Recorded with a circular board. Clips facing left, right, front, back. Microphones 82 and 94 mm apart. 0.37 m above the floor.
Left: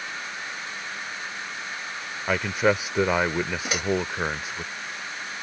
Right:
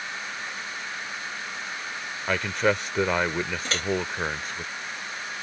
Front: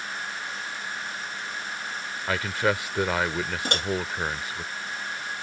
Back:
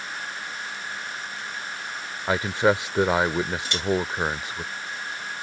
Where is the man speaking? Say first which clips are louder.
Left 2 dB, back 4 dB; 165° left.